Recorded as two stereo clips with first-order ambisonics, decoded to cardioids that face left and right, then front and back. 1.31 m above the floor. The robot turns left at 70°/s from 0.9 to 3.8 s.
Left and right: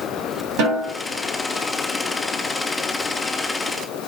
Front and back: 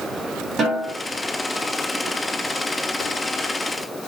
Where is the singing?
I don't hear singing.